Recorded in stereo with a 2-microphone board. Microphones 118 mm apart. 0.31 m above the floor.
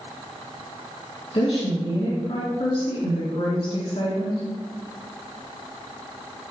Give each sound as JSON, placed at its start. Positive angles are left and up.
{"t": 1.3, "sound": "a woman speaking", "side_deg": 55, "distance_m": 3.0}